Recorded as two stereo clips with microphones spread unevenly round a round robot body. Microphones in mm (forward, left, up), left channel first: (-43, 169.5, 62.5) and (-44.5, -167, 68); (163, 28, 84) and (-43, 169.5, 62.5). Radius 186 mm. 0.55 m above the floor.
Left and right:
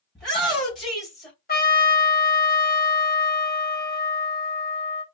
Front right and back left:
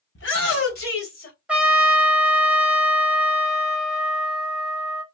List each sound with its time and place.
0.1 s a shout: straight ahead, 4 m
1.5 s a trumpet: 75° left, 1.4 m